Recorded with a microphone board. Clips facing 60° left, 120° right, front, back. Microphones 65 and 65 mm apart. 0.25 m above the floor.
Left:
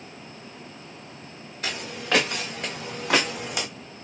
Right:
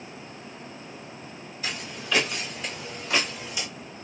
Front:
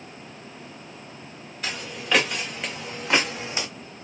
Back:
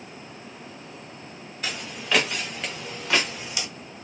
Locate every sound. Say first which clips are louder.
1.6 s footsteps: left 2 dB, front 1 dB; 85° left, 1.9 m; by 3.7 s 45° left, 0.6 m